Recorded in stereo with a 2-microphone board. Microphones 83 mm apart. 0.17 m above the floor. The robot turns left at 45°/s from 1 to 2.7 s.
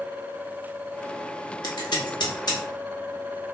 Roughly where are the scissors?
Left.